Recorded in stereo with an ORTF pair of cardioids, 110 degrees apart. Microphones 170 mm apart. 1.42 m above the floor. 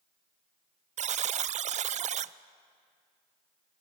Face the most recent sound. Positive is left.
turn(degrees=-45)